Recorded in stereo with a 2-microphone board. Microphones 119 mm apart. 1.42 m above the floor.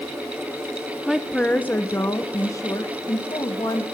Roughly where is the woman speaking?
Centre.